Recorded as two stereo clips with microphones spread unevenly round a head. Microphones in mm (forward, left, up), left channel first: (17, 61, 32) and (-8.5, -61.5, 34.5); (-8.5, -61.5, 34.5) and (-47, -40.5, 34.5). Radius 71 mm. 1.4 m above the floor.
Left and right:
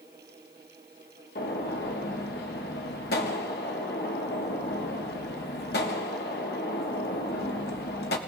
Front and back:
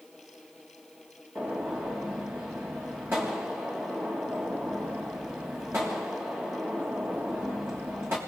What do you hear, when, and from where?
1.4 s a gunshot: 80° left, 1.5 m